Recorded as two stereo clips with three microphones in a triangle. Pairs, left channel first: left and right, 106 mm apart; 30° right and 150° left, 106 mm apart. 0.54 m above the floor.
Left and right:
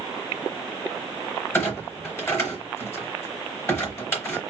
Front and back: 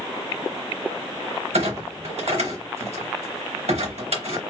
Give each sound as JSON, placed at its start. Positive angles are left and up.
{"t": 1.5, "sound": "a clunk", "azimuth_deg": 160, "distance_m": 3.0}